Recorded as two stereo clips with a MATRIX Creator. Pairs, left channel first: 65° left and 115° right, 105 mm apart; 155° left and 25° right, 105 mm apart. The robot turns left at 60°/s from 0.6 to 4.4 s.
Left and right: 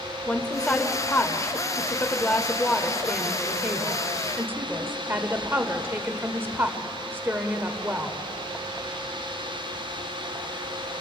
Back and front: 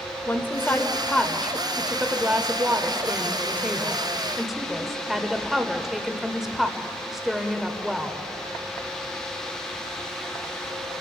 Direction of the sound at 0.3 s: 125° left.